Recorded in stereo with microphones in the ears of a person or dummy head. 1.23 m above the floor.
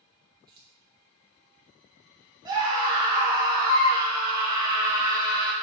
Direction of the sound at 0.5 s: 25° right (ahead or behind).